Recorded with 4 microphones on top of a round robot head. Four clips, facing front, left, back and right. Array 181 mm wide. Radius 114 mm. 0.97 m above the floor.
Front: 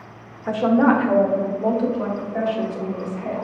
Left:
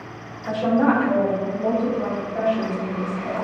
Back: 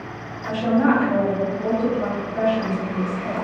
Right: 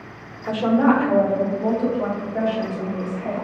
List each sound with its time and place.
0.5 s a woman speaking: 20° right, 0.7 m; by 3.4 s straight ahead, 2.5 m